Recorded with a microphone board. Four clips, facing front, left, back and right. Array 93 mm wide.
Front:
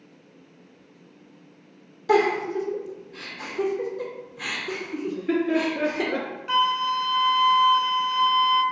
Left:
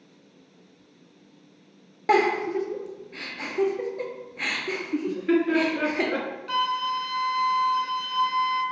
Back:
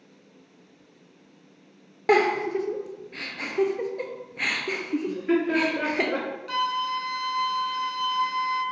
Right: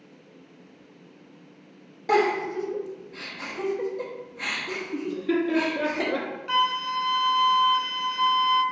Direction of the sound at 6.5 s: 30° right.